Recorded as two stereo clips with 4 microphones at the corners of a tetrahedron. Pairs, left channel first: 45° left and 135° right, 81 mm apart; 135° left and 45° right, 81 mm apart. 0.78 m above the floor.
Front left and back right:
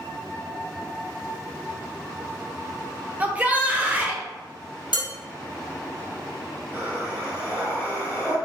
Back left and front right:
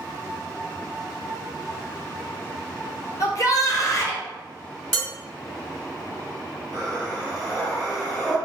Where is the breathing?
10° right, 1.7 m.